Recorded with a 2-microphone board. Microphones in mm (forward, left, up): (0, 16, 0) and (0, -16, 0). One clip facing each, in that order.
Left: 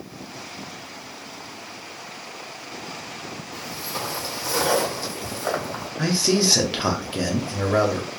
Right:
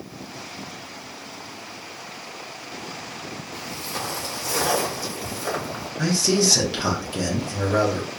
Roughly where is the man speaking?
Left.